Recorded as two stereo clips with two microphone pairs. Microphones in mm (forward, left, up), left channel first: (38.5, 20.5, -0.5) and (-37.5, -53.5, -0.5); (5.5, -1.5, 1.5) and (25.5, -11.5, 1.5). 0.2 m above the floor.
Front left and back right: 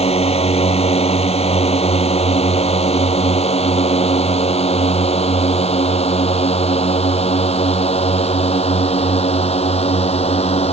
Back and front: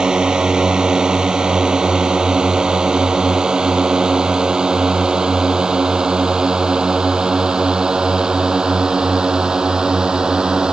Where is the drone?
30° left.